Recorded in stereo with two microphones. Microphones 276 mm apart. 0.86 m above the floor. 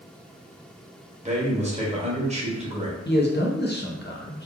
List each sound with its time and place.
1.2 s a man speaking: 25° right (ahead or behind), 0.9 m
3.0 s a man speaking: 40° left (ahead or behind), 0.6 m